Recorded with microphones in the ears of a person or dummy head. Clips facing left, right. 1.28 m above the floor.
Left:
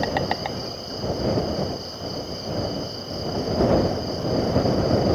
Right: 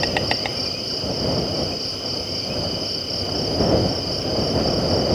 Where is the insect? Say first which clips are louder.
Right 1 dB; 35° right (ahead or behind).